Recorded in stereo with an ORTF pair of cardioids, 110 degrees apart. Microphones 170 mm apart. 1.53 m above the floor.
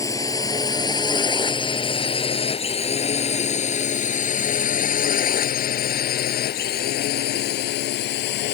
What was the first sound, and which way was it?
A drone, 20° left.